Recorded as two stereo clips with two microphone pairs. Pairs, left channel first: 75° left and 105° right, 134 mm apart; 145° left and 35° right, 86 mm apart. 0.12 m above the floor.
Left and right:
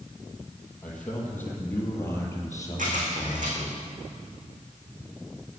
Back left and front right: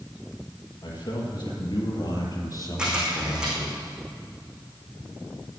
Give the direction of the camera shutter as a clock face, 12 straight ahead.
4 o'clock.